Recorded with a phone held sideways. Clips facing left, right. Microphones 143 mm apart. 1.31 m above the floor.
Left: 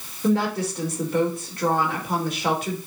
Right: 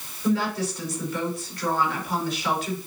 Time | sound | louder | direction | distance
0.2 | a woman speaking | left 2 dB | 55° left (ahead or behind) | 4 m